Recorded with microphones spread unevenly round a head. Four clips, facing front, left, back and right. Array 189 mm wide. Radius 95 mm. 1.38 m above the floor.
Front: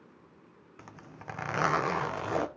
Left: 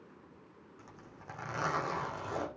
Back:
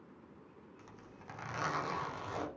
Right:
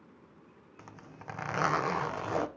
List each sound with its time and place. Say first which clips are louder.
0.8 s a zipper: right 5 dB, front 10 dB; 30° right, 1.0 m